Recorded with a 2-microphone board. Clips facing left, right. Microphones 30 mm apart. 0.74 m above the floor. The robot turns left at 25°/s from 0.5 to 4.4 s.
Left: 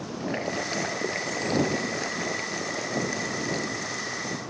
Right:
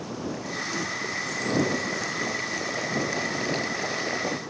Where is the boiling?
50° left; by 4.4 s 50° right.